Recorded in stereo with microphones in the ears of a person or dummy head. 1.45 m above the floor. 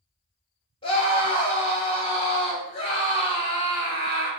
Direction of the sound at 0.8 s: 30° left (ahead or behind).